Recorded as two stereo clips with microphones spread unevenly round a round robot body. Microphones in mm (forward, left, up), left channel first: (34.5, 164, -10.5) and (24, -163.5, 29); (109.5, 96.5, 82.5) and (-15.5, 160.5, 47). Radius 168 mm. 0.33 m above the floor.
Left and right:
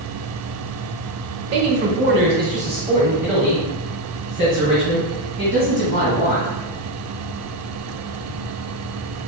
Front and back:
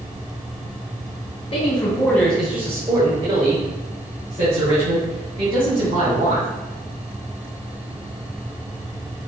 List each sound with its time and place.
1.5 s a man speaking: 75° right, 1.1 m; by 6.5 s 155° left, 3.5 m